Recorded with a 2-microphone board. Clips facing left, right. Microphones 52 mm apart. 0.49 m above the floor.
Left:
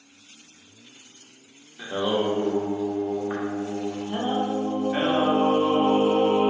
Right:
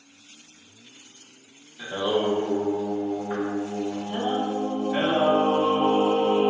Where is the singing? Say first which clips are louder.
Even; 20° left (ahead or behind), 0.6 m.